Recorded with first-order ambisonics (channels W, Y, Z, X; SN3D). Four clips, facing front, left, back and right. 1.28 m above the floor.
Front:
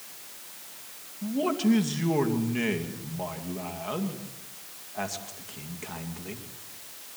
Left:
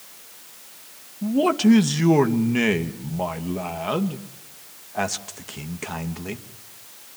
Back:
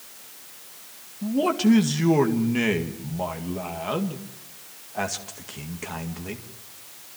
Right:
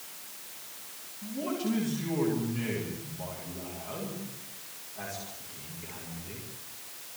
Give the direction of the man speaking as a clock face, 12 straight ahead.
8 o'clock.